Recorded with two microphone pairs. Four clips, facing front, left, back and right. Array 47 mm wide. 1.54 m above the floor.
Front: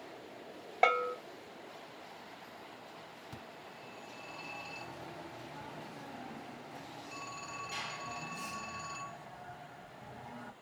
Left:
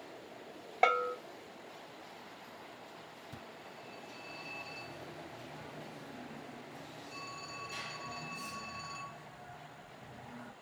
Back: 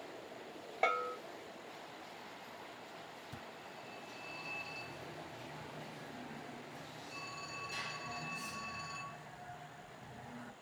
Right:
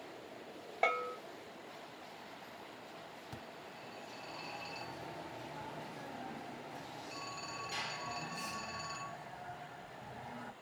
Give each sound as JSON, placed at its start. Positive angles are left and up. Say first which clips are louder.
{"t": 0.8, "sound": "a bell", "louder": "left 5 dB, front 5 dB", "azimuth_deg": 50, "distance_m": 0.6}
{"t": 3.3, "sound": "a phone ringing", "louder": "even, even", "azimuth_deg": -55, "distance_m": 2.5}